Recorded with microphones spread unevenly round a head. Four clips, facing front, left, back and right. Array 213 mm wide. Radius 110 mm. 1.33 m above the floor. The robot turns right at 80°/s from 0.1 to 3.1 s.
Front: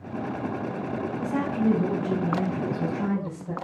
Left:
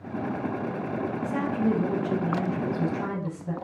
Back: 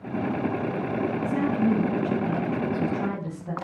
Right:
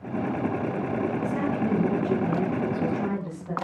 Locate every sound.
1.2 s a woman speaking: 10° right, 8.5 m; by 3.5 s 140° left, 8.5 m